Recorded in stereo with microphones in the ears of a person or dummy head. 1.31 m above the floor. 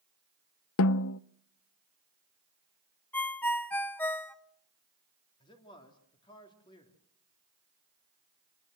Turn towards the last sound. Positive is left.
turn(degrees=25)  # may be behind; listen again after turning